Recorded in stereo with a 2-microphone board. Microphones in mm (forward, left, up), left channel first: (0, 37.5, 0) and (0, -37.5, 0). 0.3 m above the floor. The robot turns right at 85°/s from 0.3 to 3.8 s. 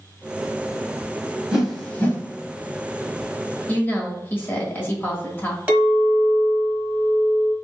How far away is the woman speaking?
About 1.1 m.